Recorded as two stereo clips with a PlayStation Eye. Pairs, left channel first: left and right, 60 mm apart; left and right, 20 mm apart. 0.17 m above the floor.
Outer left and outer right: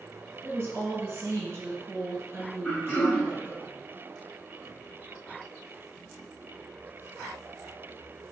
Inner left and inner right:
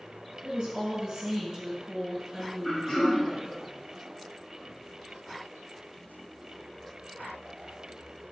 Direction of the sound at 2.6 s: 30° left (ahead or behind).